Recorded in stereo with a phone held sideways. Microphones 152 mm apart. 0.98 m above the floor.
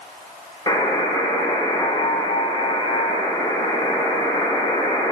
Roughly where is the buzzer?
Left.